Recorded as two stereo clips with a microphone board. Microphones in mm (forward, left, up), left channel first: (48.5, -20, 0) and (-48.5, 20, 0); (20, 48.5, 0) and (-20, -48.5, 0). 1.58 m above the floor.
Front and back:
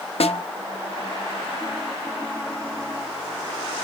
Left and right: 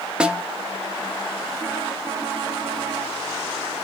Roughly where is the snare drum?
Ahead right.